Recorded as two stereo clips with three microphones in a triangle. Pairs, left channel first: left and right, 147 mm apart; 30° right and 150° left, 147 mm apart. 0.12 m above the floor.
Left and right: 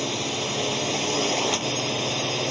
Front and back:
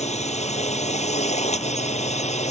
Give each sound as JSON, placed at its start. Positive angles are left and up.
{"t": 0.0, "sound": "a drone", "azimuth_deg": 0}